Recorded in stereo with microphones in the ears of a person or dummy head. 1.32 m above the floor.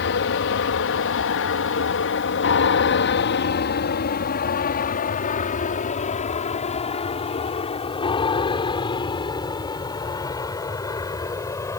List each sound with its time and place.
0.0 s an aircraft: 60° left (ahead or behind); by 11.8 s 15° left (ahead or behind)